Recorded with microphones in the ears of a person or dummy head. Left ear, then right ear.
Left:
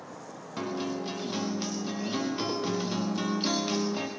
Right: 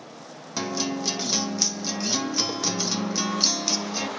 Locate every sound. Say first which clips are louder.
0.6 s a guitar: right 5 dB; 80° right, 1.8 m